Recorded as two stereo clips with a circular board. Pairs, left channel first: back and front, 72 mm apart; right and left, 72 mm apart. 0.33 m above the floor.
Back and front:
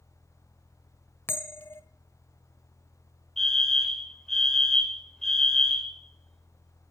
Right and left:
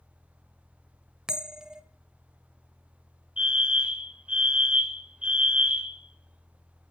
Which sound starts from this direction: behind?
A bell, at 1.3 s.